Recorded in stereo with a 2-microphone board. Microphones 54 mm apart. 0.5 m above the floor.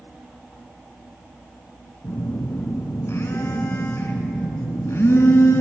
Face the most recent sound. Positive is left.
turn(degrees=55)  # may be behind; listen again after turning